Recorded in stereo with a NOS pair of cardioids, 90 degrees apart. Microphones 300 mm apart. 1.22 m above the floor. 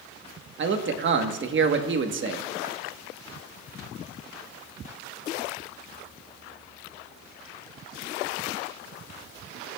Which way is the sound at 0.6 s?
40° right.